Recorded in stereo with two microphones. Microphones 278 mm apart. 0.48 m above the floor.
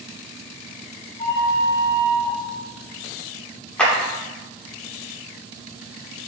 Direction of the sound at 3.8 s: 5° left (ahead or behind).